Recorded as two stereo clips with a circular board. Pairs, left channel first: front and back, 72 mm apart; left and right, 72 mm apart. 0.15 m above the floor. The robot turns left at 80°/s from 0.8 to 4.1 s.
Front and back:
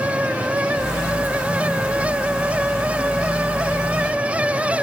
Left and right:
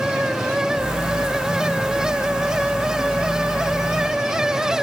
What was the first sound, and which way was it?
Only background noise.